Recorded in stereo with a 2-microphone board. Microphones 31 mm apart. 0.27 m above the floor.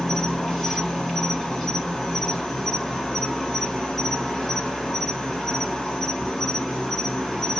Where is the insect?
10° left (ahead or behind), 1.2 m.